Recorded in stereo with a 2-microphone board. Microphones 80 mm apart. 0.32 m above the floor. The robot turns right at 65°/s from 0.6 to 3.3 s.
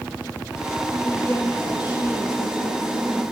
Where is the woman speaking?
25° left, 5.5 m; by 3.2 s 170° left, 5.5 m.